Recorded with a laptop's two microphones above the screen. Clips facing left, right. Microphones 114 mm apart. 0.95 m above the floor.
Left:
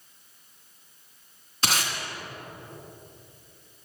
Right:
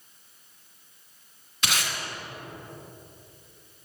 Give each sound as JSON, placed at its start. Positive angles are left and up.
{"t": 1.6, "sound": "tape being pulled", "side_deg": 35, "distance_m": 1.6}